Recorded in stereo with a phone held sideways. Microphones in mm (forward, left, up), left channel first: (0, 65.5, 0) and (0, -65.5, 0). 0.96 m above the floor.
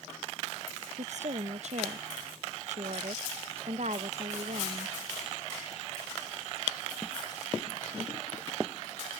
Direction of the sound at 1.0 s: 60° right (ahead or behind).